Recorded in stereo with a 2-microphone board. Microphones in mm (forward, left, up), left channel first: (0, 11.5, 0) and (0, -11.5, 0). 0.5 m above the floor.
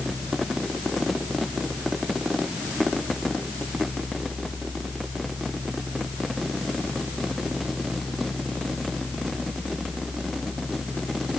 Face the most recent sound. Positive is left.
No sound to turn to.